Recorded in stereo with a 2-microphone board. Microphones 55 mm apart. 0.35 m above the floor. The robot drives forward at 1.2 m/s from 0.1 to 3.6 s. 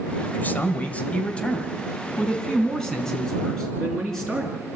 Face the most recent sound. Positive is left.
turn(degrees=10)  # may be behind; listen again after turning